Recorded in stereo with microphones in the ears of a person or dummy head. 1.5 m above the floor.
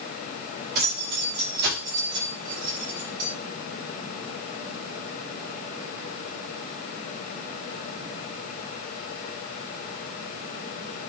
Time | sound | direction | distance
0.8 | keys jangling | 45° right (ahead or behind) | 4.5 m